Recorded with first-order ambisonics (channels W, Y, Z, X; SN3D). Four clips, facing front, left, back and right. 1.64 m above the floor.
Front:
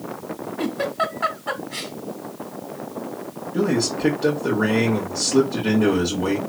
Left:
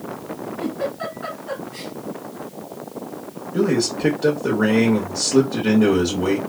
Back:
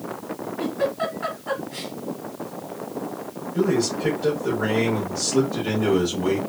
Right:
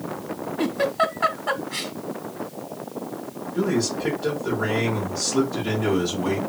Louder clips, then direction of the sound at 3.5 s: Left 4 dB, even; 60° left.